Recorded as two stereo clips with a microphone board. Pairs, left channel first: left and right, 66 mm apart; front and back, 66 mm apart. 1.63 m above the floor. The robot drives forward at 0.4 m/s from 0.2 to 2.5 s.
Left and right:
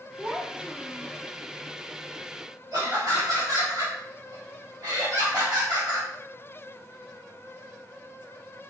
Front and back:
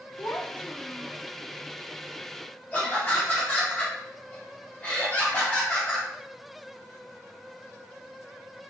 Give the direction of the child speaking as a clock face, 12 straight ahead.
1 o'clock.